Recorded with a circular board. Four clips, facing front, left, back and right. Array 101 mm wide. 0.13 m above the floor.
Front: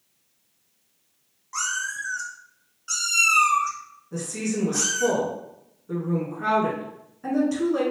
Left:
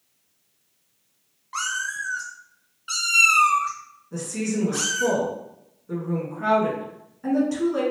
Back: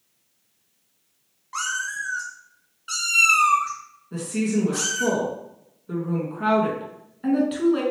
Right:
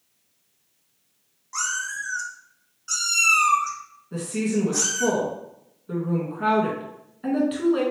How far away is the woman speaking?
About 1.2 m.